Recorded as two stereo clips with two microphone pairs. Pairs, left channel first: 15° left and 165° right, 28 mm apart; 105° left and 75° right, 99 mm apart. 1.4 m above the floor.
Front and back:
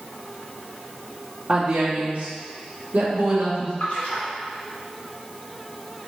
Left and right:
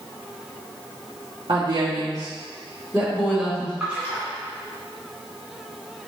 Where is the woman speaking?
100° right, 0.8 m; by 3.7 s 170° right, 1.8 m.